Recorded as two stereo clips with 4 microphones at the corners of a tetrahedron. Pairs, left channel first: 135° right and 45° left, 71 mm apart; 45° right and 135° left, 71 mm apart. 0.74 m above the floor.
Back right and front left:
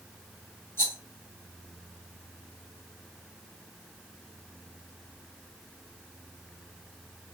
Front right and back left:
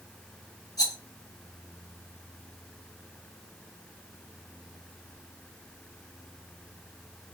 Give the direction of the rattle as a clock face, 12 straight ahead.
3 o'clock.